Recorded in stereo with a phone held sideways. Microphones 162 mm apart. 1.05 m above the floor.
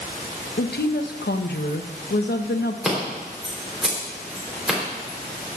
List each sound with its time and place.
0.6 s a woman speaking: 85° left, 0.7 m
2.8 s scissors: 5° right (ahead or behind), 3 m